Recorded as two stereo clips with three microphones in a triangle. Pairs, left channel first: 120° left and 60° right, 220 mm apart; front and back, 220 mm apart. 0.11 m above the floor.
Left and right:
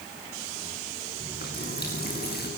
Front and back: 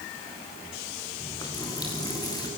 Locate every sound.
1.2 s a running tap: 75° left, 6.5 m